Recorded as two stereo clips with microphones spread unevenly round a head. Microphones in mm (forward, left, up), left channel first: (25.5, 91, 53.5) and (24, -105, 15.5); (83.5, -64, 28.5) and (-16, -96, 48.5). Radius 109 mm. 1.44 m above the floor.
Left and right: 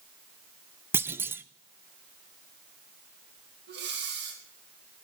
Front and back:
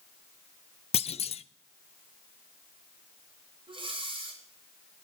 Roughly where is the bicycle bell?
I don't hear a bicycle bell.